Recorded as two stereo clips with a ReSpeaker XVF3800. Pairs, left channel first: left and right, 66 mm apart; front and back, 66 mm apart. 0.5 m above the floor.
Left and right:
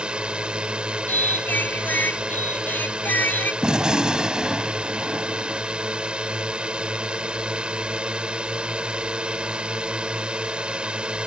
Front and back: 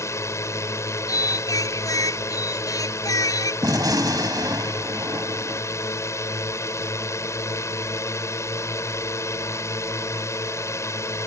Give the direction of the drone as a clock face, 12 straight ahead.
1 o'clock.